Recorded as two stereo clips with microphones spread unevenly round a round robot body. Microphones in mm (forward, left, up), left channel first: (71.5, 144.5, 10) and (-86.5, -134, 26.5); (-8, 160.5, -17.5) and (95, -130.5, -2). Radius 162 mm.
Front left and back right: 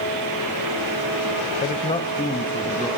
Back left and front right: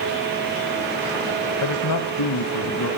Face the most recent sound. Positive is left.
turn(degrees=145)